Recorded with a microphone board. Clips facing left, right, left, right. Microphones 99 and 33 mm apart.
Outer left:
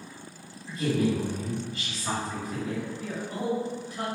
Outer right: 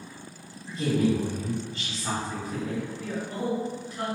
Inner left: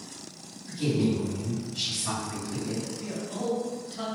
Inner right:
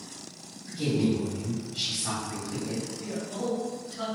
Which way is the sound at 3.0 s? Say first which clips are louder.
Outer right 1 dB, even; 15° left (ahead or behind).